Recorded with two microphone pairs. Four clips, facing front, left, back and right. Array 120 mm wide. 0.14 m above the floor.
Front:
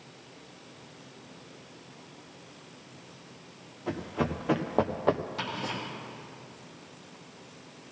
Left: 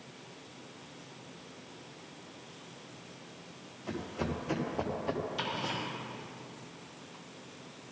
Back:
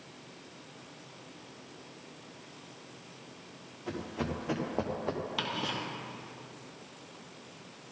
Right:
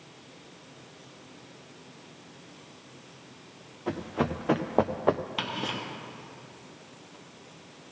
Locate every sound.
3.9 s running footsteps: 75° right, 1.9 m; by 5.2 s 55° right, 0.9 m
5.4 s ticking: 115° right, 2.5 m